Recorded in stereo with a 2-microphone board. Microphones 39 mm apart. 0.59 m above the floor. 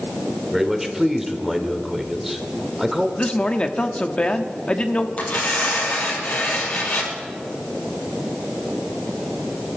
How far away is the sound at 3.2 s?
About 1.0 m.